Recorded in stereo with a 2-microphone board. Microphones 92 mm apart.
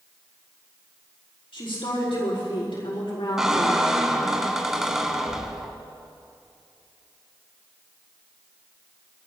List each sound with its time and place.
1.5 s a woman speaking: 75° left (ahead or behind), 4.5 m
3.4 s a squeak: 5° right (ahead or behind), 1.2 m